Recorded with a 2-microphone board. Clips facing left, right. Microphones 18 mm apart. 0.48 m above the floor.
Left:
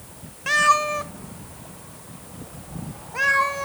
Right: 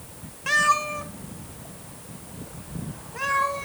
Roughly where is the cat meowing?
Centre.